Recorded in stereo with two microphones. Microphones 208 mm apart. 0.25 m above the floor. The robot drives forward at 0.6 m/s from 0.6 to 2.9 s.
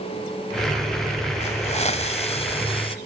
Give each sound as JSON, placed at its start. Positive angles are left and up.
{"t": 1.4, "sound": "a hiss", "side_deg": 35, "distance_m": 1.3}